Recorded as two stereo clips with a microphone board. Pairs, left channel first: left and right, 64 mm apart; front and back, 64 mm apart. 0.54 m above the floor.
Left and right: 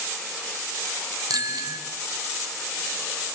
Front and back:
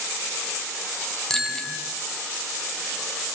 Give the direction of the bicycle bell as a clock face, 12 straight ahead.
3 o'clock.